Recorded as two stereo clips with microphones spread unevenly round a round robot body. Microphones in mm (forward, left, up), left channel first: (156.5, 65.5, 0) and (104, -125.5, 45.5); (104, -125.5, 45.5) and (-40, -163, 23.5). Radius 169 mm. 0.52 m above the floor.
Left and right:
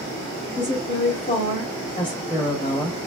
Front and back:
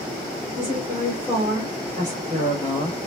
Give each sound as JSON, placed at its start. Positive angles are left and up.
{"t": 0.6, "sound": "a woman speaking", "azimuth_deg": 115, "distance_m": 1.6}